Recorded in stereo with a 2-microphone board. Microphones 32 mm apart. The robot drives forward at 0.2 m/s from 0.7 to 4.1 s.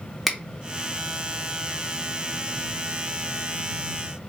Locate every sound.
0.3 s a finger snap: 5° right (ahead or behind), 0.7 m